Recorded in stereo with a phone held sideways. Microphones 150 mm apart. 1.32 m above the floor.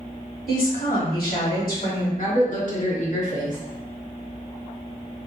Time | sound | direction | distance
0.5 | a woman speaking | 75° left (ahead or behind) | 1.9 m
2.2 | a woman speaking | 60° left (ahead or behind) | 1.2 m